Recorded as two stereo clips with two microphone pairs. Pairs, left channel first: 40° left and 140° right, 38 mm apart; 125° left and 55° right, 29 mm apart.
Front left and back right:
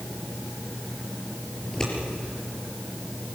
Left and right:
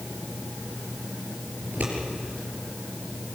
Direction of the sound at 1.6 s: 30° right.